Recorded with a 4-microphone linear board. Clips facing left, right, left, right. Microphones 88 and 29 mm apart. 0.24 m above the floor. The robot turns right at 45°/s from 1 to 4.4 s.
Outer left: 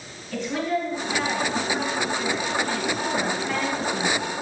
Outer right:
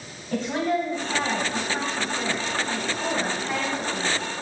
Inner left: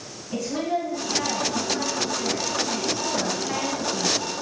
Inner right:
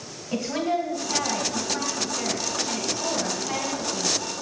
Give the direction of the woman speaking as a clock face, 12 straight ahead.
4 o'clock.